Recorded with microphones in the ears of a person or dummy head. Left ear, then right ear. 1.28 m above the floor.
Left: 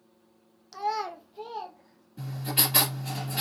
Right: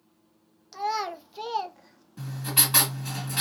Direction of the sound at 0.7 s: Centre (ahead or behind).